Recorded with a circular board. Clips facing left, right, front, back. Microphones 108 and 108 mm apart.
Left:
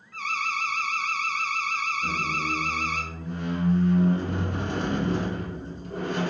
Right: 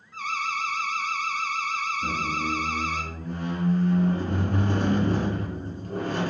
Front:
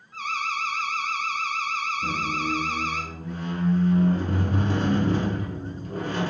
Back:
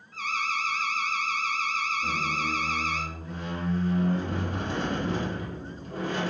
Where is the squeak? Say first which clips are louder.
Right 1 dB, front 2 dB; 50° right, 2.5 m.